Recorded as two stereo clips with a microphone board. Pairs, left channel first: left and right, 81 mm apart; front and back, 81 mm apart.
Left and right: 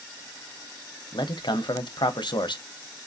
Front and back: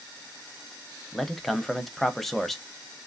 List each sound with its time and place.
1.1 s a man speaking: 90° left, 0.6 m